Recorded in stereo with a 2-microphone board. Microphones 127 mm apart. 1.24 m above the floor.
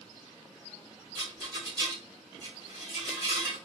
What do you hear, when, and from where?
1.1 s a rattle: 30° right (ahead or behind), 1.4 m